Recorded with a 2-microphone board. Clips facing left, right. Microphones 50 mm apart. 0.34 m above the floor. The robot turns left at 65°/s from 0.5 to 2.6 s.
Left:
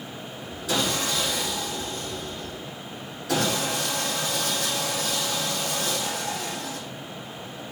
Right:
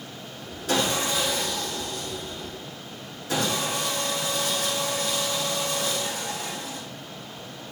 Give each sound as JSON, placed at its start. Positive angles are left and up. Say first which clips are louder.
{"t": 0.7, "sound": "sawing", "louder": "right 1 dB", "azimuth_deg": -140, "distance_m": 5.0}